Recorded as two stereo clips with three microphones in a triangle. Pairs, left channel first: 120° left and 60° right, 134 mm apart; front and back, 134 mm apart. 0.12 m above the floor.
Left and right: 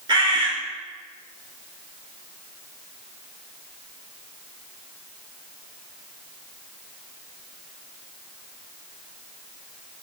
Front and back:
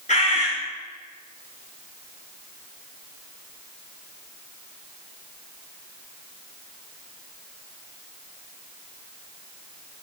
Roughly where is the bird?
Ahead.